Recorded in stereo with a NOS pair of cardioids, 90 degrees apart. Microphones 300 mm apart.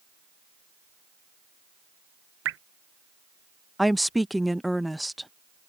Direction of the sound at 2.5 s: 45° right.